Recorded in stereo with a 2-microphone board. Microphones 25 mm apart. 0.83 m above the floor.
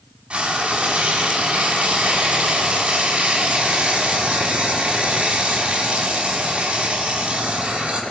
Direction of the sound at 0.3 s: 40° right (ahead or behind).